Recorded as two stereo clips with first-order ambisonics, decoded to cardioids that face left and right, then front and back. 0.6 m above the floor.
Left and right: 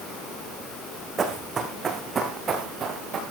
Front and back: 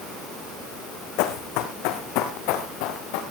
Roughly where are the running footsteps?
Ahead.